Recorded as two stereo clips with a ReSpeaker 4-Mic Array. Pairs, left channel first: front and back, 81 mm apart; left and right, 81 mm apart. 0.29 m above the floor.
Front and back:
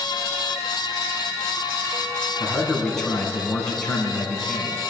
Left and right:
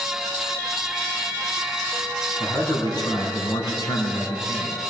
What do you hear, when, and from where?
2.4 s a man speaking: 85° left, 3.5 m